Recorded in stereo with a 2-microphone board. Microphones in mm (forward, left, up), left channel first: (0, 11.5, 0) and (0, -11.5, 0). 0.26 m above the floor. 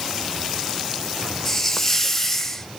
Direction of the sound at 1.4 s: 15° left (ahead or behind).